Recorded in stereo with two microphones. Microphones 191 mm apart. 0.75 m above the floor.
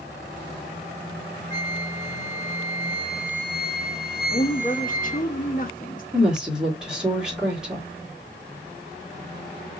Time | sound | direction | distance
1.5 | a flute | 15° left (ahead or behind) | 2 m
4.3 | a woman speaking | 45° left (ahead or behind) | 0.8 m
6.1 | a woman speaking | 5° right (ahead or behind) | 1.6 m